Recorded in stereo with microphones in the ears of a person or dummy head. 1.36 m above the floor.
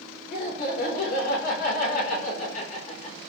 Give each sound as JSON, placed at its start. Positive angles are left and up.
{"t": 0.3, "sound": "laughter", "side_deg": 60, "distance_m": 4.5}